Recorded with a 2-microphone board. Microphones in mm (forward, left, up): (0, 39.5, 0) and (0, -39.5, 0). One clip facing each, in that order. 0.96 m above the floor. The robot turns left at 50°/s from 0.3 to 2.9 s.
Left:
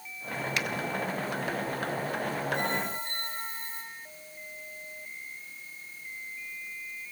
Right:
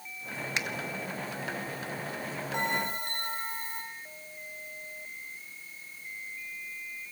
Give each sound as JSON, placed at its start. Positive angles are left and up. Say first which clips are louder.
{"t": 0.6, "sound": "a finger snap", "louder": "left 1 dB", "side_deg": -20, "distance_m": 1.0}
{"t": 2.5, "sound": "a bell", "louder": "even", "side_deg": -75, "distance_m": 7.5}